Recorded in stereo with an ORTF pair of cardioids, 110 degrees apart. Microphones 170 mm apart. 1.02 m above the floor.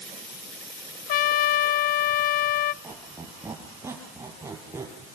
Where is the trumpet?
60° left, 0.7 m.